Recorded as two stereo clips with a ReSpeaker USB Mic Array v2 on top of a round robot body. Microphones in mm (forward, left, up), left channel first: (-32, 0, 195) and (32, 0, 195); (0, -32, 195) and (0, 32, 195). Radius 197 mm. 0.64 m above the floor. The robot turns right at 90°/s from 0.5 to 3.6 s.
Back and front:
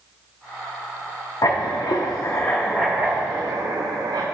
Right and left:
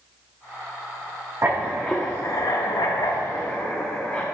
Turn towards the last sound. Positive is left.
turn(degrees=-20)